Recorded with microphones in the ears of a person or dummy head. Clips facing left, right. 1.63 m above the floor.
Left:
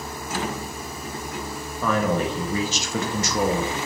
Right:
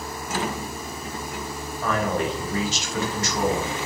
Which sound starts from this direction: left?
A man speaking, at 1.8 s.